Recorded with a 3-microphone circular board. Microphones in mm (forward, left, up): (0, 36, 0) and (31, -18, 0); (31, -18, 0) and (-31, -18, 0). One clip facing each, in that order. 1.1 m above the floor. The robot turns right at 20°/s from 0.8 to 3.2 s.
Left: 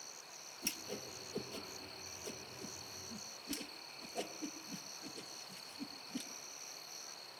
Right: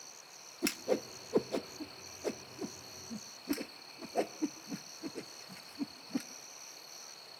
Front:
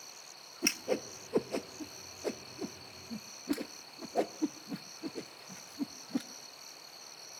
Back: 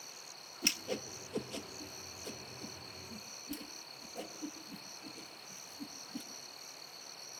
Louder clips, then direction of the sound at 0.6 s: Right 14 dB, front 6 dB; 60° right.